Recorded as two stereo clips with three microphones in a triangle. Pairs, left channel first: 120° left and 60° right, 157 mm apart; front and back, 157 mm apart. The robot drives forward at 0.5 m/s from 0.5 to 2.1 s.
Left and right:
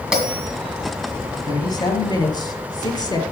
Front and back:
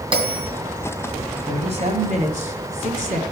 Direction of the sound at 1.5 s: 170° left.